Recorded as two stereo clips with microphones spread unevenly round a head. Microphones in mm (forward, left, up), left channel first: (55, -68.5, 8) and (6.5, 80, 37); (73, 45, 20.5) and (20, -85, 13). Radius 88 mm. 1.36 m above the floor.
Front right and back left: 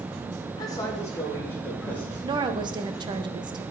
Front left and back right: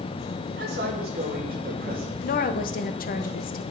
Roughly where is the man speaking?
Behind right.